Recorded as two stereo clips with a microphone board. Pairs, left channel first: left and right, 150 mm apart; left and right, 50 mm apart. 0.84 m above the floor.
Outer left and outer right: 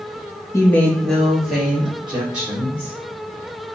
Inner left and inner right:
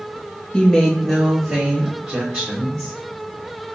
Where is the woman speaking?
20° left (ahead or behind), 0.6 m; by 2.9 s 10° right (ahead or behind), 2.5 m.